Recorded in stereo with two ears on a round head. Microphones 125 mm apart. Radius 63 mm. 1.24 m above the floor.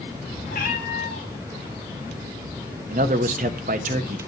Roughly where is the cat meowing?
Left.